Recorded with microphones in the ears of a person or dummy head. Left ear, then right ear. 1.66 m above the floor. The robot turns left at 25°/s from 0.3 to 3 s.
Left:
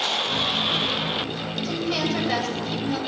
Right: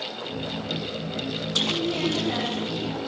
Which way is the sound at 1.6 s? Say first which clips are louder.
Even; 90° left.